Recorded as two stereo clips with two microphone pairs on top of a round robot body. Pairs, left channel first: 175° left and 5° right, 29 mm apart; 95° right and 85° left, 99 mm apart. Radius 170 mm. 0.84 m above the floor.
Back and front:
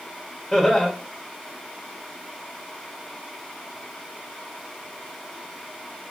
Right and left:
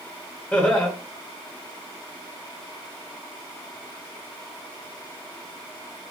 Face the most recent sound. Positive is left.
turn(degrees=-110)